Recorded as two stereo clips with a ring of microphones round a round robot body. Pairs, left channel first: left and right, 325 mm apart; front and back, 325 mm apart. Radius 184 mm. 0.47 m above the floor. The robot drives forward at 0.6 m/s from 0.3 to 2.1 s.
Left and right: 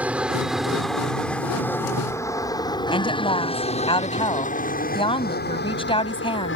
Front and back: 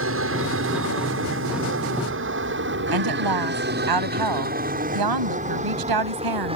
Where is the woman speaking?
165° left.